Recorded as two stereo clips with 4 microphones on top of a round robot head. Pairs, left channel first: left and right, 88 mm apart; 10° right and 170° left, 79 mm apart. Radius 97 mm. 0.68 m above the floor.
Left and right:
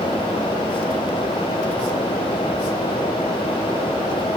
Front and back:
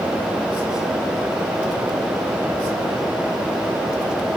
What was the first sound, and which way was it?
Only background noise.